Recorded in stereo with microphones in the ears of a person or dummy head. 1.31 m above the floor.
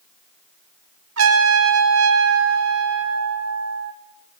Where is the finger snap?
No finger snap in this recording.